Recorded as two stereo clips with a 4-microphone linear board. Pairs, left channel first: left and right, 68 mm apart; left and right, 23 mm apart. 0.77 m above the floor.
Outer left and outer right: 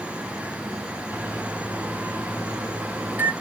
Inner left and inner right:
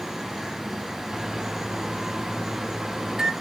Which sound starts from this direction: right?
A microwave, at 1.1 s.